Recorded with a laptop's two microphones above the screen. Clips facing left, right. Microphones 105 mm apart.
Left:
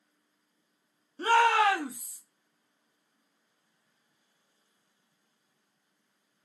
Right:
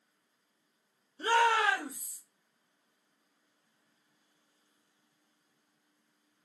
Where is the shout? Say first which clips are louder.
Left 4 dB; 75° left (ahead or behind), 0.9 m.